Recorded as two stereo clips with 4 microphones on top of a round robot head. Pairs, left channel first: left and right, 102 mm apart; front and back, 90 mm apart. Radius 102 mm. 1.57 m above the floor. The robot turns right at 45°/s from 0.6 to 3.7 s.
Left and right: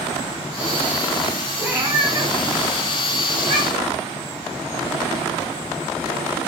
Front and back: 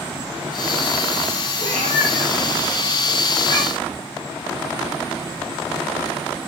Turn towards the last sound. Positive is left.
turn(degrees=-65)